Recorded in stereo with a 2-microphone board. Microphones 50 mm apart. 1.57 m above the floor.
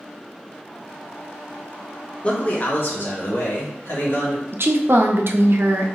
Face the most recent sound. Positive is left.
turn(degrees=-60)  # may be behind; listen again after turning